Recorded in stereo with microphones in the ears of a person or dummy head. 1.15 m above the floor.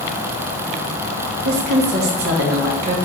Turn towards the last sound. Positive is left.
turn(degrees=-60)  # may be behind; listen again after turning